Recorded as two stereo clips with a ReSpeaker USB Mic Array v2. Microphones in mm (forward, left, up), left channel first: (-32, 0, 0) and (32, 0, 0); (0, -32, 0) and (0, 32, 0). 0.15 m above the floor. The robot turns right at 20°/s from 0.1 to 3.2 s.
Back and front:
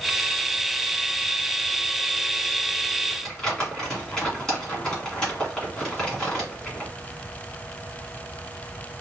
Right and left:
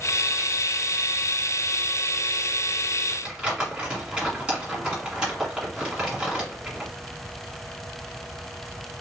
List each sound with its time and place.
3.1 s crumpling: 115° left, 1.5 m; by 6.9 s 120° left, 1.5 m